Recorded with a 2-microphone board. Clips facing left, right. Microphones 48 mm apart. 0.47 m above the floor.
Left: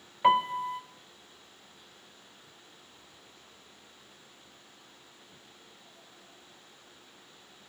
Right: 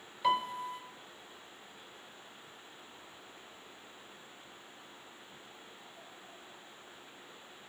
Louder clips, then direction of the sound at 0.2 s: Left 7 dB; 35° left (ahead or behind).